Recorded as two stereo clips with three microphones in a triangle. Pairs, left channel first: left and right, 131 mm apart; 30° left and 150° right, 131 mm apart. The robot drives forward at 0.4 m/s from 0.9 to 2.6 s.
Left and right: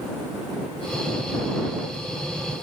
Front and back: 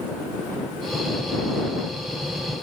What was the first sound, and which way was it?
Only background noise.